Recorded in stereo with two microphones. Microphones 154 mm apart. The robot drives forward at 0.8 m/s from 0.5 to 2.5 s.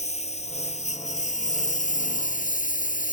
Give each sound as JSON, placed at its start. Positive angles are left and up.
{"t": 0.0, "sound": "a lawn mower", "side_deg": 45}